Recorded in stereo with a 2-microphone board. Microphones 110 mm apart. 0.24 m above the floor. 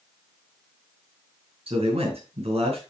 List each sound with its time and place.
1.7 s a man speaking: 65° right (ahead or behind), 5 m